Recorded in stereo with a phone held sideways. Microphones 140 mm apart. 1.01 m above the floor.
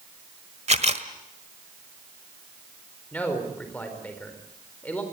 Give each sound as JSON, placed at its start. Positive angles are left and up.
{"t": 0.7, "sound": "a camera shutter", "side_deg": -50, "distance_m": 1.4}
{"t": 3.1, "sound": "a man speaking", "side_deg": 10, "distance_m": 4.5}